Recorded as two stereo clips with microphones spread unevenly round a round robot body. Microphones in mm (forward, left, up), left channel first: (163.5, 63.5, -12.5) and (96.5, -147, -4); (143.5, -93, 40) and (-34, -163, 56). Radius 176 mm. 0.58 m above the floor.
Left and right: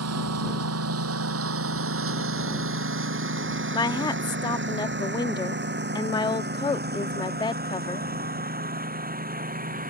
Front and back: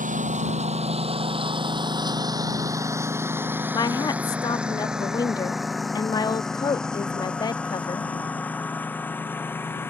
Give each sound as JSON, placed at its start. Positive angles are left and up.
{"t": 0.0, "sound": "a lawn mower", "azimuth_deg": -110}
{"t": 3.7, "sound": "a woman speaking", "azimuth_deg": 35}